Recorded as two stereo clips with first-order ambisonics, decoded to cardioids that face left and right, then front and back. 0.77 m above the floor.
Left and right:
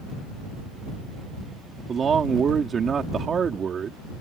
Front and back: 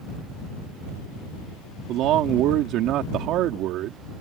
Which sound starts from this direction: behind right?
A man speaking, at 1.9 s.